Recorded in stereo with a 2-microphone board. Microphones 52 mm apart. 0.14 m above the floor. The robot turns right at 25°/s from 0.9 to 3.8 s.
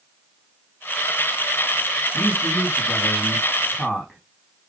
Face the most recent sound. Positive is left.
turn(degrees=-10)